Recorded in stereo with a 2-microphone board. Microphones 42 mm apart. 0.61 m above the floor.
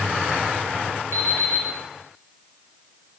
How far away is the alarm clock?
About 4.5 m.